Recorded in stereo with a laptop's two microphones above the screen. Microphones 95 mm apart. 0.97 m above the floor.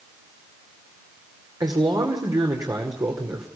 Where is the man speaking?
40° right (ahead or behind), 2.5 m.